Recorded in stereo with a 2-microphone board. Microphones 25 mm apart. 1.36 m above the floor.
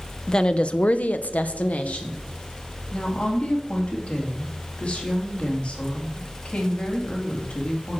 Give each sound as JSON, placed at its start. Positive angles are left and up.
{"t": 0.3, "sound": "a woman speaking", "side_deg": 25, "distance_m": 0.8}
{"t": 2.9, "sound": "a woman speaking", "side_deg": 40, "distance_m": 2.5}